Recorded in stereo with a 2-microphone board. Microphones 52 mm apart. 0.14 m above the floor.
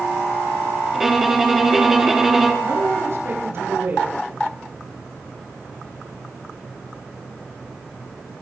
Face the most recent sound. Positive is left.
turn(degrees=-50)  # may be behind; listen again after turning